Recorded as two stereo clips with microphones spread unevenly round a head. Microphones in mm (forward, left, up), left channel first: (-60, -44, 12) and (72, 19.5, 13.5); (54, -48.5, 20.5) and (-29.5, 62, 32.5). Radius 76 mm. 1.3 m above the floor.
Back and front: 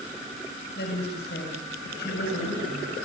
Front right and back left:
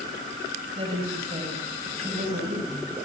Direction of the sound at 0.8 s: Straight behind.